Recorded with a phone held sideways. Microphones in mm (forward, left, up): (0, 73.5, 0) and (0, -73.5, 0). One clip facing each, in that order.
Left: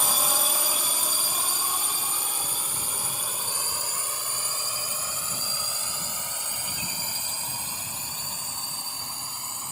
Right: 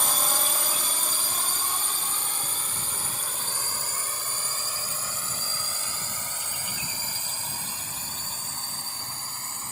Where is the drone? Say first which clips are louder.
Left 1 dB; 5° left (ahead or behind); by 9.7 s 15° left (ahead or behind).